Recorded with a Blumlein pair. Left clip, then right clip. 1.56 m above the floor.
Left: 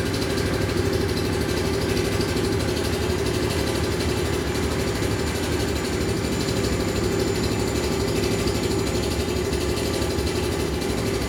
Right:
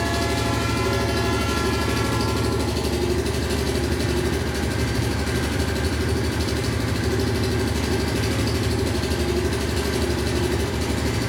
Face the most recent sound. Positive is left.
turn(degrees=-5)